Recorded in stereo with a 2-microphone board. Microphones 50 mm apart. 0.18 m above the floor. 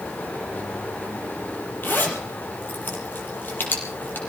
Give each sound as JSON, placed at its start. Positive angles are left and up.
{"t": 1.8, "sound": "a zipper", "side_deg": 40, "distance_m": 4.5}